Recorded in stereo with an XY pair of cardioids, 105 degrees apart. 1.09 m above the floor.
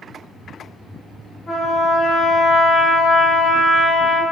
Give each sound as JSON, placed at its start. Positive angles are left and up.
{"t": 1.5, "sound": "a trumpet", "azimuth_deg": 30, "distance_m": 1.4}